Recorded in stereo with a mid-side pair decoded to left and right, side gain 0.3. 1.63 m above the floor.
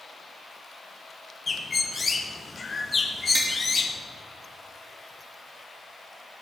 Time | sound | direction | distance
1.5 | a bird | 45° left | 1.4 m
3.4 | tapping | 35° right | 3.5 m